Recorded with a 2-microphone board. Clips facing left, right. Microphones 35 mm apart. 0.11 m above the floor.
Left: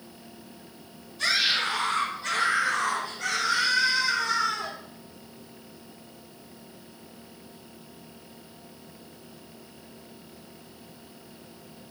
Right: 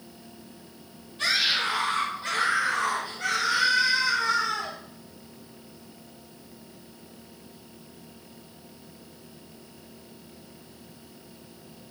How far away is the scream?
About 3.5 m.